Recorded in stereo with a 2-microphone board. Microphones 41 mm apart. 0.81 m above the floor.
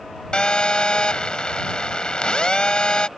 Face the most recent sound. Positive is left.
turn(degrees=25)  # may be behind; listen again after turning